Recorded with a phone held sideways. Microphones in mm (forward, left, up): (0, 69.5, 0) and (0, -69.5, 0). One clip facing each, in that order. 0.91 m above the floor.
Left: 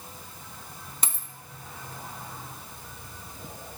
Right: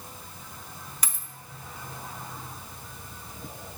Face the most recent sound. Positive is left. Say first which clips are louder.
# left 3 dB
turn(degrees=25)  # may be behind; listen again after turning